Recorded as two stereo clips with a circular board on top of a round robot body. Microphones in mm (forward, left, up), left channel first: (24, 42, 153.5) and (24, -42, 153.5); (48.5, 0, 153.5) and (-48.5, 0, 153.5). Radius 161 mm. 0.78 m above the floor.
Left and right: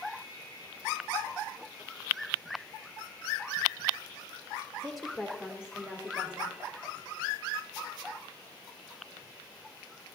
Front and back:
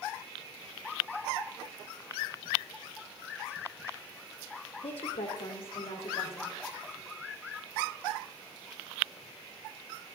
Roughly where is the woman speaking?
Ahead.